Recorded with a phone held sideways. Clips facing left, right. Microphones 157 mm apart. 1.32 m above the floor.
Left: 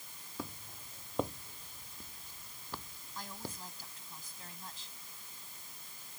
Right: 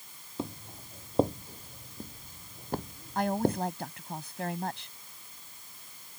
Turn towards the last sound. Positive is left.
turn(degrees=-70)  # may be behind; listen again after turning